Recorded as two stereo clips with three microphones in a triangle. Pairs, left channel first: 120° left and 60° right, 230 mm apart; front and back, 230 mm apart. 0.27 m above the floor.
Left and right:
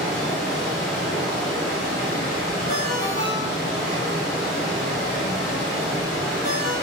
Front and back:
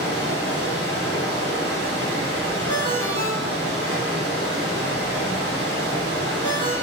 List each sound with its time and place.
0.0 s running water: 50° left, 1.7 m
2.7 s a ringtone: 140° left, 1.2 m